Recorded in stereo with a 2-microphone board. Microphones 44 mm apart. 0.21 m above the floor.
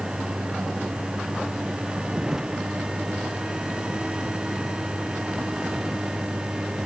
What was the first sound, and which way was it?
A vehicle, 10° right (ahead or behind).